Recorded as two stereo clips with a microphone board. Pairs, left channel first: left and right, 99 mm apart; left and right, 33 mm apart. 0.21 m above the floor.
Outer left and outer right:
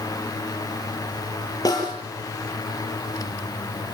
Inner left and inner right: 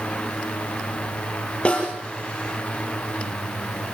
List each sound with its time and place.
1.6 s a snare drum: 40° left (ahead or behind), 6 m